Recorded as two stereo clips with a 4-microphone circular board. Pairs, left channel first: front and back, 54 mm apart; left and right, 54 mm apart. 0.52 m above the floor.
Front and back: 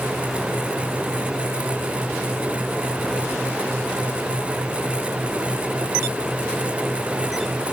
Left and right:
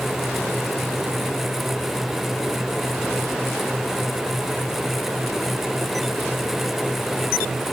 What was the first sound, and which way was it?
Only background noise.